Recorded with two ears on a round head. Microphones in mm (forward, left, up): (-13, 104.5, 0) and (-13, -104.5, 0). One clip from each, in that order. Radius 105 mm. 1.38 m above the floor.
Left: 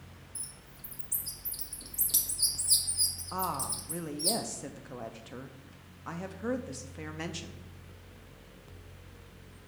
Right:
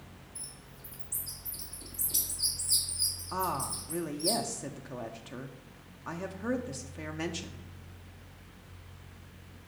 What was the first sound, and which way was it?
A bird, 35° left (ahead or behind).